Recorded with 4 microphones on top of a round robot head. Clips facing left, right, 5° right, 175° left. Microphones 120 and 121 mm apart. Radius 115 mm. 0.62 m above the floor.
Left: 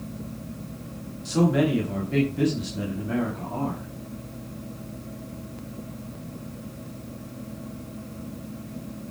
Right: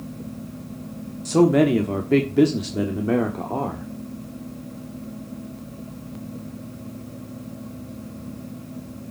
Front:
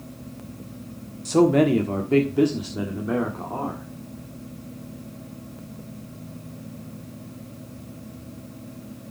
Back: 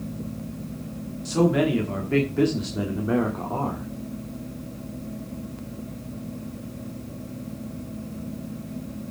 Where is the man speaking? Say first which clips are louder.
Right 6 dB, front 4 dB; 45° right, 1.4 m; by 3.9 s 115° right, 1.9 m.